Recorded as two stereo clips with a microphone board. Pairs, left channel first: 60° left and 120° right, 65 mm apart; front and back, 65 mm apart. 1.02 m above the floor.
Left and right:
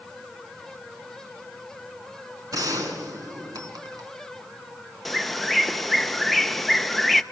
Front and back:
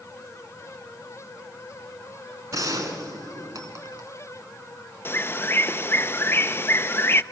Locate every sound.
2.5 s a gunshot: 150° right, 3 m
5.0 s a bird: 25° right, 0.5 m